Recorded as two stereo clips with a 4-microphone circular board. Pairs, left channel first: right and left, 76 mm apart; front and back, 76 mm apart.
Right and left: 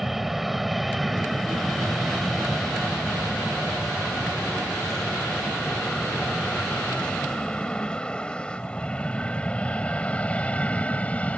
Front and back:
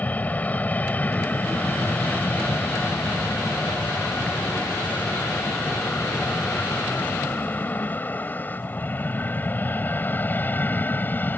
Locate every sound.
0.0 s an aircraft: 5° left; by 11.4 s 35° right